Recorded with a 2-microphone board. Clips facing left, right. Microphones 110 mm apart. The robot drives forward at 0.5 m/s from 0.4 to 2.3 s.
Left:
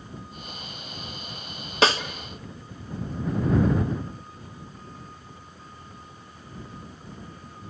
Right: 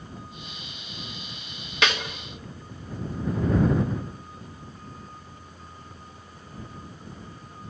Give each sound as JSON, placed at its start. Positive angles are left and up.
{"t": 1.8, "sound": "a snare drum", "side_deg": 35, "distance_m": 1.1}